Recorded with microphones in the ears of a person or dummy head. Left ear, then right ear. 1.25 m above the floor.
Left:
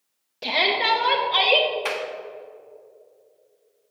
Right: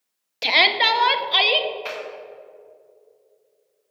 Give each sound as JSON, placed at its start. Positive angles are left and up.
{"t": 0.4, "sound": "a shout", "side_deg": -70, "distance_m": 0.7}
{"t": 1.9, "sound": "a clap", "side_deg": 15, "distance_m": 1.2}